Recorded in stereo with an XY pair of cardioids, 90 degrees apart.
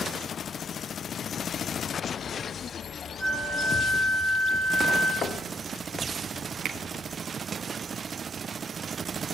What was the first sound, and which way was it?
A flute, 35° left.